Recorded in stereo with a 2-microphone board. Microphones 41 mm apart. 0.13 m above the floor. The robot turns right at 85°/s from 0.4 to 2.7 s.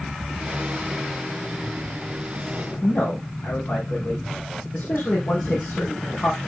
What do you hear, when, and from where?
2.8 s a man speaking: 60° left (ahead or behind), 4.5 m